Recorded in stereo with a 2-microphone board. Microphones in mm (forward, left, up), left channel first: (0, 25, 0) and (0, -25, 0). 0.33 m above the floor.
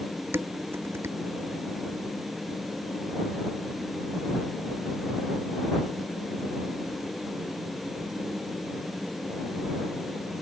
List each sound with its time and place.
0.3 s dishes clattering: 60° right (ahead or behind)